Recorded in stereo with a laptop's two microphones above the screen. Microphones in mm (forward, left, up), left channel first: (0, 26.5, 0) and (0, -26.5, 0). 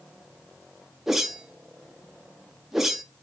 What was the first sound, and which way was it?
A whoosh, 5° right (ahead or behind).